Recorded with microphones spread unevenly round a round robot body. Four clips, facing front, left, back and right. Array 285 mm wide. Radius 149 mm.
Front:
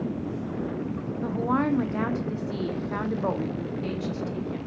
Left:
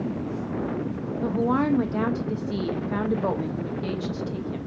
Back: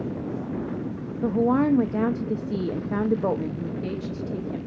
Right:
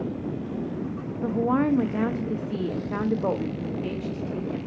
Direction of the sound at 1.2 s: 165° right.